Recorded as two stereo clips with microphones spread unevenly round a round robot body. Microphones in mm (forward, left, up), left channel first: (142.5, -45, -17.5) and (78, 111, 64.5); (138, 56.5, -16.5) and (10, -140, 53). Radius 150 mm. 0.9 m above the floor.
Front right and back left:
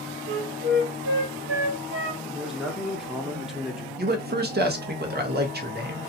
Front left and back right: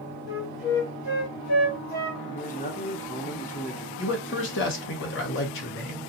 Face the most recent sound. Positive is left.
turn(degrees=70)